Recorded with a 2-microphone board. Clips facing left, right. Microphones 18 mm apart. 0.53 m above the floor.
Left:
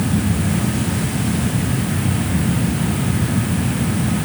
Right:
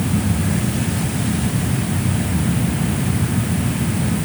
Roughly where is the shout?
No shout in this recording.